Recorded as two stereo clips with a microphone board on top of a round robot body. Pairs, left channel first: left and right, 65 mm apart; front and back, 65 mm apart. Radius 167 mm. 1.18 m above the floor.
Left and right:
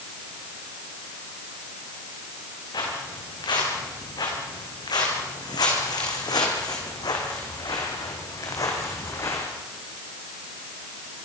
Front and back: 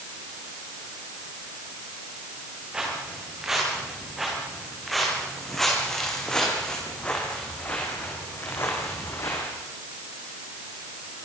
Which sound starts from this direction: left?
Footsteps, at 2.7 s.